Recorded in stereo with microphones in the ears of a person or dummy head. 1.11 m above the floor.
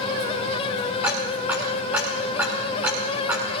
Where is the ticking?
10° right (ahead or behind), 1.7 m.